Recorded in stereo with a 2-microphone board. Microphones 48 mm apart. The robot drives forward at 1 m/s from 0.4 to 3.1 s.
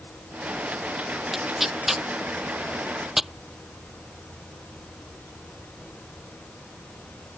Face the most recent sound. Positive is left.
turn(degrees=-5)  # may be behind; listen again after turning